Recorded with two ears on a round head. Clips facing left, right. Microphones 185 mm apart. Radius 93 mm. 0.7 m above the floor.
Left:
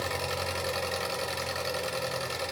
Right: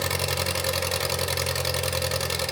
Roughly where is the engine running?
Right.